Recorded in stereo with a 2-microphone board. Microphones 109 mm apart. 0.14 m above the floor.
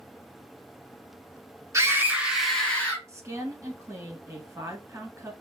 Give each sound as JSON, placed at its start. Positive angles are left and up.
{"t": 1.7, "sound": "a scream", "side_deg": -25, "distance_m": 1.3}
{"t": 3.1, "sound": "a woman speaking", "side_deg": -25, "distance_m": 1.3}